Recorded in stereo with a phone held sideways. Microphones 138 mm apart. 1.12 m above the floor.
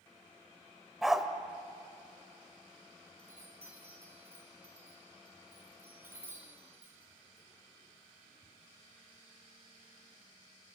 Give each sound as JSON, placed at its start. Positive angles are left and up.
{"t": 1.0, "sound": "a dog barking", "side_deg": -5, "distance_m": 1.6}
{"t": 3.2, "sound": "a chime", "side_deg": -15, "distance_m": 3.5}